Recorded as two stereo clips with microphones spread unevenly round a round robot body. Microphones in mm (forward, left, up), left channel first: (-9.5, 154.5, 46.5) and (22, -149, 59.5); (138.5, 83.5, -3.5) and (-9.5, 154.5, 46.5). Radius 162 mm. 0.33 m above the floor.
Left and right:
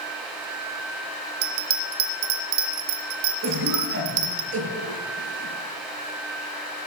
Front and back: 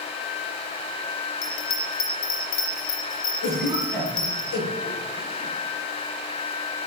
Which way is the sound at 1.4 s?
80° right.